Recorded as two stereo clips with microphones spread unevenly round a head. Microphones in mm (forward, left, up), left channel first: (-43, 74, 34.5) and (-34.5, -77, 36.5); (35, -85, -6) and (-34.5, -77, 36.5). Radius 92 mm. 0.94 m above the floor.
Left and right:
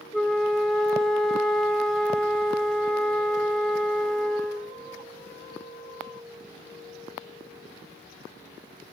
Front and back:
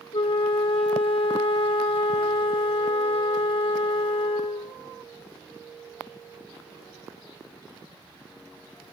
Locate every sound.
0.1 s a flute: 5° left, 1.5 m